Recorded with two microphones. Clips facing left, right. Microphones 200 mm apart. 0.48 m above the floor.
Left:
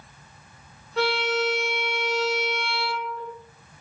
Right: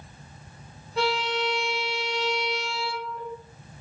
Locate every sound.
1.0 s a violin: centre (ahead or behind), 1.3 m